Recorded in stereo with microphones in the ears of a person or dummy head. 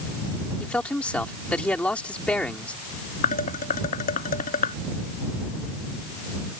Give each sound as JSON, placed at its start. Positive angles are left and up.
{"t": 0.6, "sound": "a man speaking", "side_deg": 5}
{"t": 3.2, "sound": "dishes clattering", "side_deg": 45}